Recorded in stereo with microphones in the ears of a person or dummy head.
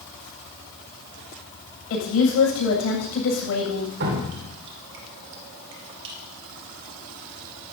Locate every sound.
1.9 s a woman speaking: 75° left (ahead or behind), 7.5 m
4.0 s dripping: 60° right (ahead or behind), 2.5 m